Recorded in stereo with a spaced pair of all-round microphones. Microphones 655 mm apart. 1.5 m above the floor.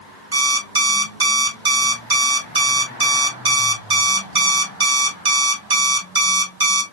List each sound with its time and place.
0.3 s an alarm clock: 35° right (ahead or behind), 0.9 m